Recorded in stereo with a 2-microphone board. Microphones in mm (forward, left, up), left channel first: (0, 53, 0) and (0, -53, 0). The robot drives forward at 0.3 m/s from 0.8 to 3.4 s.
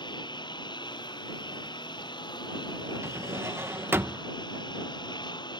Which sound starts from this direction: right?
A drawer, at 3.0 s.